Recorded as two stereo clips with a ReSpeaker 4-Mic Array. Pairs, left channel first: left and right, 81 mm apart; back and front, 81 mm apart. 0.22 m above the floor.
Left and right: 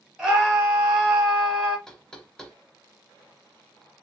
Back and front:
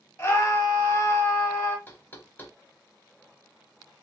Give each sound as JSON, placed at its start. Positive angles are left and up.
{"t": 0.2, "sound": "a scream", "azimuth_deg": -155, "distance_m": 1.5}
{"t": 1.9, "sound": "knocking", "azimuth_deg": 165, "distance_m": 0.7}